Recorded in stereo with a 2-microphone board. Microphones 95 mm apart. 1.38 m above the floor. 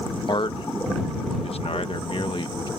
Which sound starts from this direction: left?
A man speaking, at 0.3 s.